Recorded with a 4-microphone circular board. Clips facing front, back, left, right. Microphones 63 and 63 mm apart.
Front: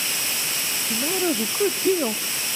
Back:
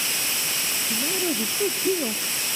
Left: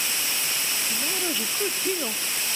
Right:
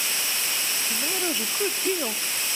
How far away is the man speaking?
About 0.6 m.